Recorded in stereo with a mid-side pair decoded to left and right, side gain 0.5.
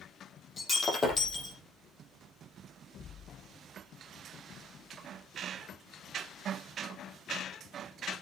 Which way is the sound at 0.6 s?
30° left.